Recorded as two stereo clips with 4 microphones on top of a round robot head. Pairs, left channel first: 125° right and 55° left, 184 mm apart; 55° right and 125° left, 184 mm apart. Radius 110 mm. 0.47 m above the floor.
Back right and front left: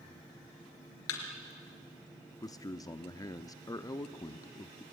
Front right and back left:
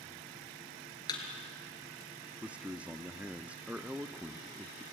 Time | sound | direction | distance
1.1 | a thud | 125° right | 3.5 m
2.4 | a man speaking | 160° right | 0.7 m